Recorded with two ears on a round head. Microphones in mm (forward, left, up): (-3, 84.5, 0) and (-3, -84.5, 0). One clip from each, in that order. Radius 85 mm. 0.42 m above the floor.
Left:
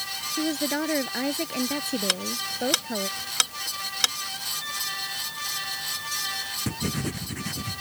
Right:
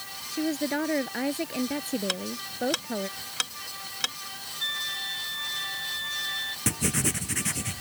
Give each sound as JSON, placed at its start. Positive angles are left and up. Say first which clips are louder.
{"t": 0.3, "sound": "a woman speaking", "louder": "even", "side_deg": 0}
{"t": 2.1, "sound": "ticking", "louder": "left 5 dB", "side_deg": 25}
{"t": 4.6, "sound": "a flute", "louder": "right 1 dB", "side_deg": -40}
{"t": 6.7, "sound": "writing", "louder": "right 2 dB", "side_deg": -70}